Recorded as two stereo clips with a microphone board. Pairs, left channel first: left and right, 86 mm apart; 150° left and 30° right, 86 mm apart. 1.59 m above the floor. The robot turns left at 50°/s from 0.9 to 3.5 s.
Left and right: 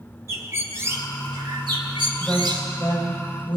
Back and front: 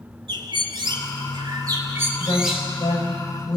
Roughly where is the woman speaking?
Behind.